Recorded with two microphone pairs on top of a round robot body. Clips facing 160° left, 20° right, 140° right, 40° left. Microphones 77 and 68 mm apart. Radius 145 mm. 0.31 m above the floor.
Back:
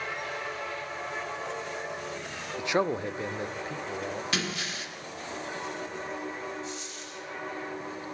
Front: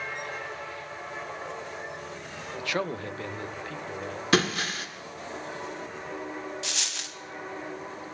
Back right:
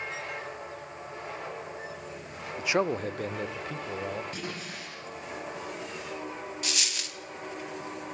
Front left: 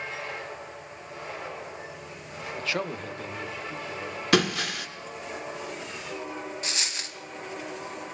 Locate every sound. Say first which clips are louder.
2.6 s a man speaking: back 4 dB, back right 5 dB; 155° left, 1.0 m; by 4.2 s 130° right, 2.5 m
4.3 s breaking glass: front 8 dB, front left 13 dB; 25° left, 1.7 m
6.6 s a dropped coin: front 1 dB, front left 1 dB; 20° right, 1.3 m